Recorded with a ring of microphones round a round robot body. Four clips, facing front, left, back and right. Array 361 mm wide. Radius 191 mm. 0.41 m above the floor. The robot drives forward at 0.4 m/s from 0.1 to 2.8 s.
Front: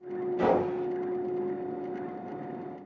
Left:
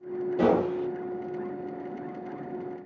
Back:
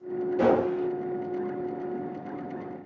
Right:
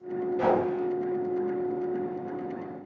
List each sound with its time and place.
0.4 s a gunshot: 110° left, 4 m